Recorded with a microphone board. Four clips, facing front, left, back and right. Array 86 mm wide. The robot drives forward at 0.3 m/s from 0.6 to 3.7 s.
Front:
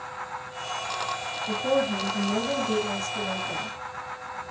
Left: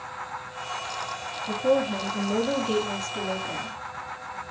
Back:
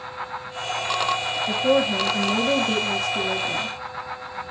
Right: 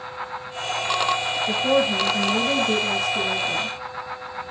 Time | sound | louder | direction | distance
1.5 | a woman speaking | right 2 dB, back 4 dB | 135° right | 1.1 m